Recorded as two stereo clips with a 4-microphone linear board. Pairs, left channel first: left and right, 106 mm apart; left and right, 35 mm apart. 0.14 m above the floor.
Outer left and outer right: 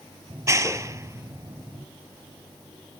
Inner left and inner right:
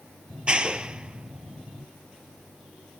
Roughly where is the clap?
Right.